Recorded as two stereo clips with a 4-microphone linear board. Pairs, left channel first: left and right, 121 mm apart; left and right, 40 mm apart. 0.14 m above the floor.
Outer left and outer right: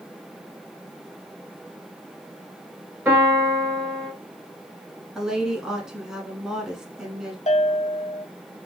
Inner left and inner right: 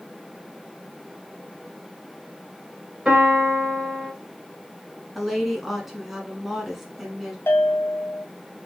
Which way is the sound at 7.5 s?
70° left (ahead or behind).